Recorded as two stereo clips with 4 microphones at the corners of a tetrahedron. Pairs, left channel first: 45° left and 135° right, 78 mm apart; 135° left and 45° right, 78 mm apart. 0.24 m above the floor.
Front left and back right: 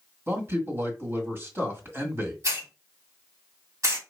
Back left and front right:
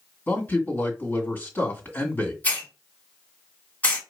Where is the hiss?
165° right, 1.6 m.